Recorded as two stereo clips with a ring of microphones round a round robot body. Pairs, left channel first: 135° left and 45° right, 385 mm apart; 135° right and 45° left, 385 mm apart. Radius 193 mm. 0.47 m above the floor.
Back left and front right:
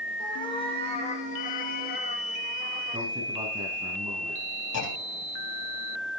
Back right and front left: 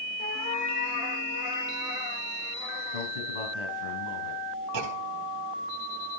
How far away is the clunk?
About 4 m.